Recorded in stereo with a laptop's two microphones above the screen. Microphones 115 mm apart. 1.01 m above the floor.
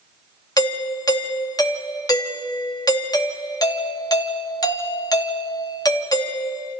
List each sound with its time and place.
0.6 s a doorbell: 30° left (ahead or behind), 2.5 m